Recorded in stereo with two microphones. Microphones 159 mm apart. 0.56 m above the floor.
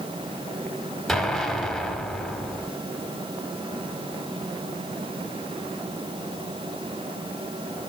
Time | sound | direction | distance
1.1 | an explosion | centre (ahead or behind) | 1.3 m